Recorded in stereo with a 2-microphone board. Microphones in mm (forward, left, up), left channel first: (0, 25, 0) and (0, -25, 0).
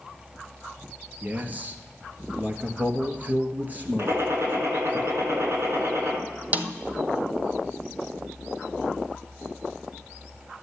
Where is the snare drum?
35° right (ahead or behind), 0.9 m.